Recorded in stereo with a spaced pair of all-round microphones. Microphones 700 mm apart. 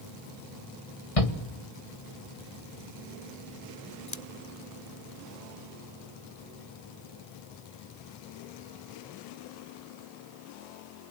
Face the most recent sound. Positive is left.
turn(degrees=45)  # may be behind; listen again after turning